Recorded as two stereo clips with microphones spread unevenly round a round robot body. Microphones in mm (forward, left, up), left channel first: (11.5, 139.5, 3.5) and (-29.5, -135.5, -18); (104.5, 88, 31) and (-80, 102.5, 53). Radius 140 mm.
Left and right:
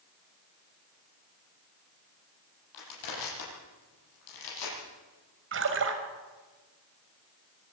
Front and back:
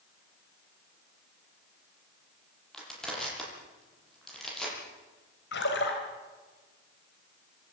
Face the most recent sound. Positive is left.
turn(degrees=-50)